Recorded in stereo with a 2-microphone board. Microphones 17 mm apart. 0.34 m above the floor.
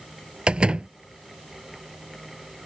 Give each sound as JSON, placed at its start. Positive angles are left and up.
{"t": 0.5, "sound": "a door slam", "side_deg": -65}